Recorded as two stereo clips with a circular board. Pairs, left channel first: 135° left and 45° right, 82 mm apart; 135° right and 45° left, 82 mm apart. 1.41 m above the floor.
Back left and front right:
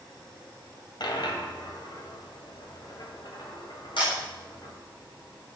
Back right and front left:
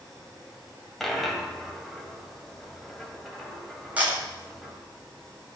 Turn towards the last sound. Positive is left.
turn(degrees=115)